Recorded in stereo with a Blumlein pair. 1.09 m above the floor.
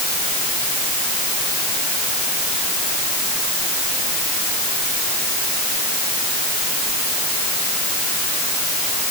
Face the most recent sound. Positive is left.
No sound to turn to.